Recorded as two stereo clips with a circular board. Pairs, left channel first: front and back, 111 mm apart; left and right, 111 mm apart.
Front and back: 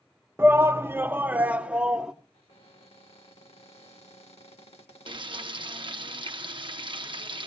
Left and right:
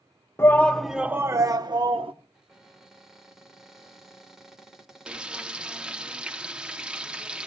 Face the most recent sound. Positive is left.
turn(degrees=-170)